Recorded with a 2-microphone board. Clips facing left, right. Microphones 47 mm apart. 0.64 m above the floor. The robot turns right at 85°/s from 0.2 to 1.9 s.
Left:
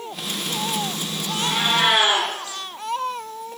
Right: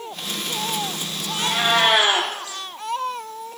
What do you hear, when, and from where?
1.4 s a cat meowing: 95° right, 9 m; by 2.3 s 50° right, 9 m